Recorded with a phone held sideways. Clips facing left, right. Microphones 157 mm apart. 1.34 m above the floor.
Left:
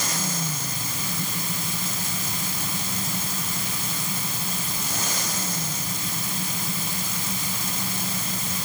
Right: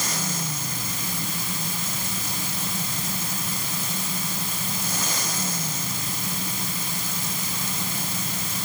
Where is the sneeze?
I don't hear a sneeze.